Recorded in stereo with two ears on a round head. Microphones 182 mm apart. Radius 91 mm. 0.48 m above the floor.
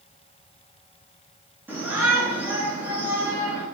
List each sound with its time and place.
1.7 s a shout: 10° right (ahead or behind), 8.5 m; by 3.6 s 5° right (ahead or behind), 7.5 m